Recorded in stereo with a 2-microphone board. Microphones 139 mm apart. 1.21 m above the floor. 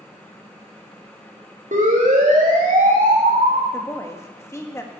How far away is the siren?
About 3.5 m.